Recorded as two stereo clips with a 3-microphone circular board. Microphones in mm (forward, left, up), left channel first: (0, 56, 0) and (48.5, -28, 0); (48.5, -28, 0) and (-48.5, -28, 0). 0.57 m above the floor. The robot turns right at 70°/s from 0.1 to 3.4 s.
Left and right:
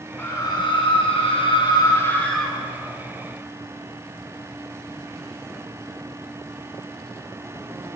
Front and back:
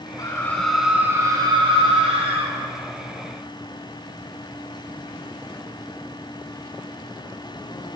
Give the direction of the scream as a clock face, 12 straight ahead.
10 o'clock.